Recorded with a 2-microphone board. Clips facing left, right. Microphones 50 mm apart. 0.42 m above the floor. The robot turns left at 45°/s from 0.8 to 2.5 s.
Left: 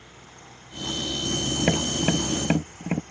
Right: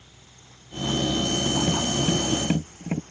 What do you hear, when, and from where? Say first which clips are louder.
1.6 s tapping: even; 70° left (ahead or behind); by 3.0 s 30° left (ahead or behind)